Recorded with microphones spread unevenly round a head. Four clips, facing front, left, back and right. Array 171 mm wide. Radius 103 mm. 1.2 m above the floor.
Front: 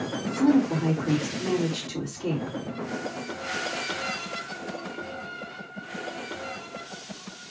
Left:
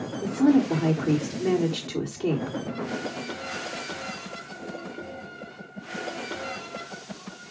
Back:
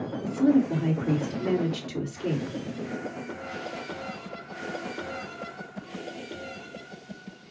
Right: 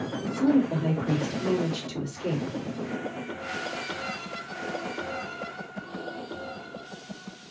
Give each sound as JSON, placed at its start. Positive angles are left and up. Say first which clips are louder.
{"t": 0.2, "sound": "a woman speaking", "louder": "left 3 dB, even", "azimuth_deg": 105, "distance_m": 3.5}